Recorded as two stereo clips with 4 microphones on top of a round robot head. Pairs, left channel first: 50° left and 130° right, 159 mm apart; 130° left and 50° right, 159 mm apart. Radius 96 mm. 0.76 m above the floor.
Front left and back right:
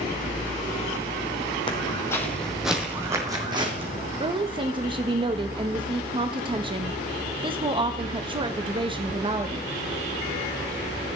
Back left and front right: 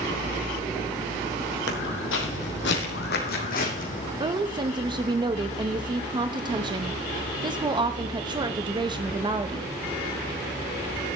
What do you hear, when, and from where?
1.7 s footsteps: 110° left, 2 m; by 4.1 s 175° left, 3 m
4.2 s a woman speaking: 95° right, 0.9 m